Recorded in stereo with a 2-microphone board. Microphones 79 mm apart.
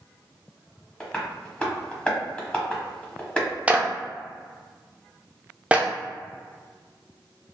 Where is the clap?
15° right (ahead or behind), 0.5 m.